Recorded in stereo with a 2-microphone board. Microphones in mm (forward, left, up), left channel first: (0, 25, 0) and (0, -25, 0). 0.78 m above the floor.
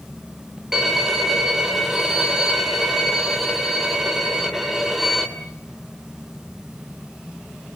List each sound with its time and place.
0.7 s a violin: 10° right (ahead or behind), 2 m